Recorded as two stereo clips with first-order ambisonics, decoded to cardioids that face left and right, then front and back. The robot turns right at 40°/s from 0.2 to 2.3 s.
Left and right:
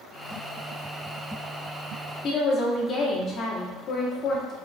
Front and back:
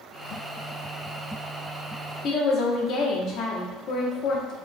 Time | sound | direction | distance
2.2 | a woman speaking | 40° left | 1.1 m